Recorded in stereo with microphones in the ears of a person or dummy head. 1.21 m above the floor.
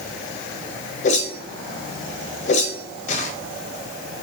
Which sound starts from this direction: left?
A whoosh, at 1.0 s.